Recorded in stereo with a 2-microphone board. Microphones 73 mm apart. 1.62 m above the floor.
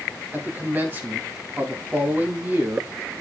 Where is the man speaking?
25° right (ahead or behind), 2.5 m.